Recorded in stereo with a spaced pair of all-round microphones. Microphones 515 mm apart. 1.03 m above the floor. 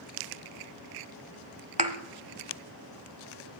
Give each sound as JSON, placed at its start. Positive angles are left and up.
{"t": 1.8, "sound": "a thud", "side_deg": -15, "distance_m": 1.1}